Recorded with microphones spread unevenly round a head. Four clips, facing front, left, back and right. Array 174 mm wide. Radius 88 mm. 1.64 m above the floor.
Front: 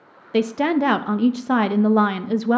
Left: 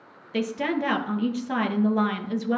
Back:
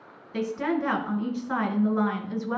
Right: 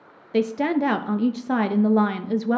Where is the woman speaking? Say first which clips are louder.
Right 5 dB, front 8 dB; 25° right, 0.5 m.